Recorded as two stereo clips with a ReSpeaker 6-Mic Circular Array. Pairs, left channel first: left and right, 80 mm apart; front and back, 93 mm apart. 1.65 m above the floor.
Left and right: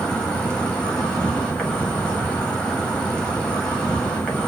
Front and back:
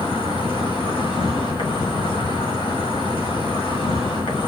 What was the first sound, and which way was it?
An insect, 10° left.